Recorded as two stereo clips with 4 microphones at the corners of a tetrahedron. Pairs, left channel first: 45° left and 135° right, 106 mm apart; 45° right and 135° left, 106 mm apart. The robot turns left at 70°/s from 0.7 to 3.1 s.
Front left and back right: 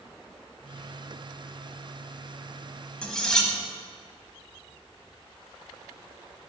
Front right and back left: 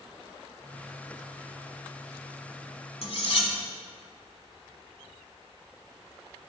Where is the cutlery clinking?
35° right, 1.3 m; by 3.5 s 40° right, 1.3 m.